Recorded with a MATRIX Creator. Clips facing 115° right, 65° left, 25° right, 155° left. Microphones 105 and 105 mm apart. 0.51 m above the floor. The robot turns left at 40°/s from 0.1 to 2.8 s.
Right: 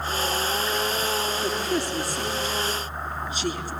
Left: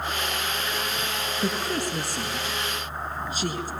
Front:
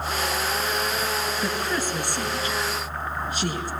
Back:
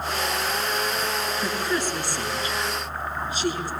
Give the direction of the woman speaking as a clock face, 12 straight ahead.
9 o'clock.